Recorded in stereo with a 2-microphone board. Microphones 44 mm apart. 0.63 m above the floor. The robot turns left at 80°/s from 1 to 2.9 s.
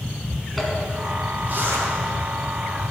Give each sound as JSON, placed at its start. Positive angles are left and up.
{"t": 0.6, "sound": "a zipper", "side_deg": 0, "distance_m": 3.0}